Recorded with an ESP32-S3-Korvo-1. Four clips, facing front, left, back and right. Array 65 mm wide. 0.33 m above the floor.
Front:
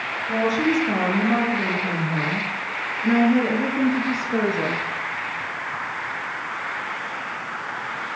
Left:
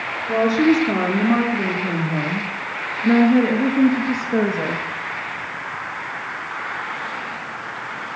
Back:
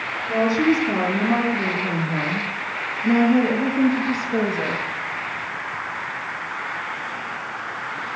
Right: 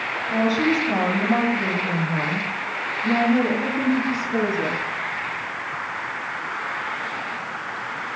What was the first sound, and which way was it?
A woman speaking, 80° left.